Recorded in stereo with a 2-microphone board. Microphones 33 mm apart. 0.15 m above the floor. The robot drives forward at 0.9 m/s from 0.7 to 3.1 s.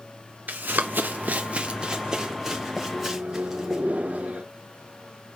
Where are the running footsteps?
75° right (ahead or behind), 1.3 m; by 3.8 s 5° right (ahead or behind), 3.5 m.